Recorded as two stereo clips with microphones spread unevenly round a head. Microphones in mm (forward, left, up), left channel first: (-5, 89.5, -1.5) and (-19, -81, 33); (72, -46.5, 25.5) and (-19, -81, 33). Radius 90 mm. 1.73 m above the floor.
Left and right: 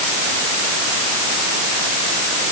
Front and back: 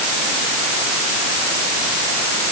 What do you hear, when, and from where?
Only background noise.